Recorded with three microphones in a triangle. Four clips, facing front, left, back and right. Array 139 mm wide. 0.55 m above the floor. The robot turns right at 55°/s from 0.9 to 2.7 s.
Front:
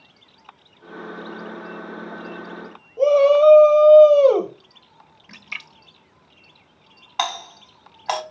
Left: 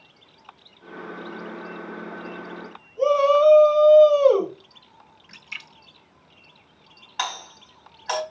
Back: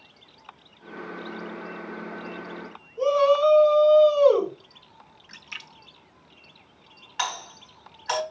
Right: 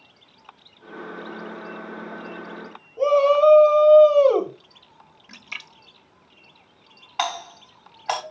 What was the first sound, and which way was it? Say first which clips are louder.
A shout: right 1 dB, front 6 dB; 20° right.